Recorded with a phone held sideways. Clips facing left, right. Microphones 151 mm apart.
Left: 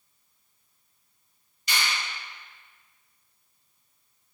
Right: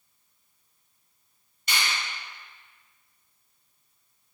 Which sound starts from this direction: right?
A finger snap, at 1.7 s.